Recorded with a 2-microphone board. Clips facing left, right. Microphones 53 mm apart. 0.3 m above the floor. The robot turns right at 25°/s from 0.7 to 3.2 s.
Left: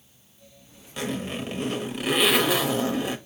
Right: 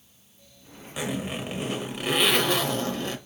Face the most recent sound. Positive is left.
turn(degrees=30)